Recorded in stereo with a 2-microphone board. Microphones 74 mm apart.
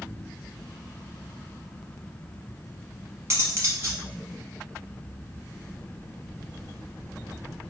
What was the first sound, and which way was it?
Cutlery clinking, 40° right (ahead or behind).